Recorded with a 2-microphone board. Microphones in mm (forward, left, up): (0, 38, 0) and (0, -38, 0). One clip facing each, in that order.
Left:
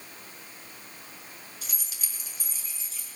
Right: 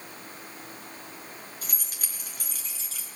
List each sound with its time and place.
1.6 s keys jangling: 35° right (ahead or behind), 3.5 m; by 3.1 s 70° right (ahead or behind), 3.5 m